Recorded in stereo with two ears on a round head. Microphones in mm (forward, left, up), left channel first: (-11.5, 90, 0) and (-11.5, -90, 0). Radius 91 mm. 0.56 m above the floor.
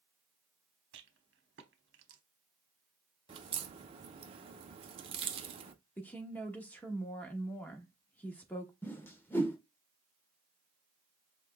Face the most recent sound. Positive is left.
turn(degrees=10)  # may be behind; listen again after turning